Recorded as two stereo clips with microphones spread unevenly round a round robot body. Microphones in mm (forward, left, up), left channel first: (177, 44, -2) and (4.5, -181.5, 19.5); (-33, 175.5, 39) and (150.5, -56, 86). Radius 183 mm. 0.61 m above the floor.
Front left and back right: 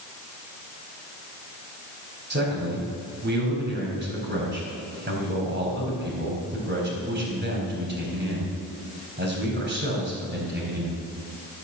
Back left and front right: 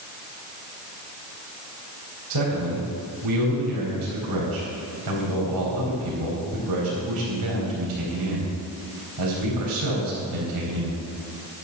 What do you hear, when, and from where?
2.3 s a man speaking: 75° right, 4 m